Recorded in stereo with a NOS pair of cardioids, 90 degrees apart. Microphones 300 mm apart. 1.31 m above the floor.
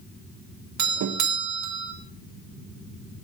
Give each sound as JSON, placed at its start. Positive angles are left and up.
{"t": 0.8, "sound": "a doorbell", "azimuth_deg": -65, "distance_m": 1.6}